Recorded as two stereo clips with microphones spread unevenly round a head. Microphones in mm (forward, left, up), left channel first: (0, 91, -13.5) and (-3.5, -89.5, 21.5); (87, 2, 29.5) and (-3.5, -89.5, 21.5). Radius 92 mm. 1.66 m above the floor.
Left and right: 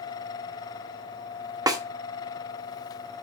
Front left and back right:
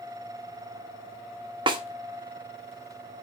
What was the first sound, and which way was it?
A snare drum, 115° right.